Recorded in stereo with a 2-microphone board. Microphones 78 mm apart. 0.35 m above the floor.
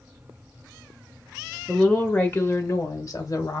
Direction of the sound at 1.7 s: 5° left (ahead or behind).